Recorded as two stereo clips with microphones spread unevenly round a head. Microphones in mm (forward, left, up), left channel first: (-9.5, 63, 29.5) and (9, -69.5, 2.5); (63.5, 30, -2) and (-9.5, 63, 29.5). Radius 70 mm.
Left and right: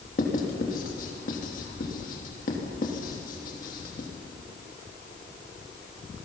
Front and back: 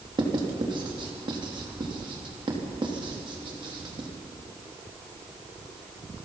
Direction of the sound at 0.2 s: 130° left.